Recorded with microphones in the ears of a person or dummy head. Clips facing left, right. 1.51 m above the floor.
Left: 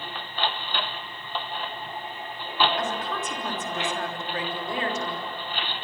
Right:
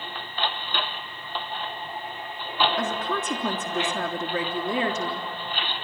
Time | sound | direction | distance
2.8 | a woman speaking | 65° right (ahead or behind) | 3.5 m